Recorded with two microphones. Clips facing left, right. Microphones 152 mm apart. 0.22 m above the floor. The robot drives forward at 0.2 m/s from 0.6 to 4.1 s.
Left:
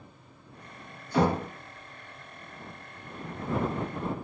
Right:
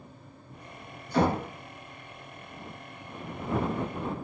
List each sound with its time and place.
1.1 s knocking: 15° left (ahead or behind), 1.3 m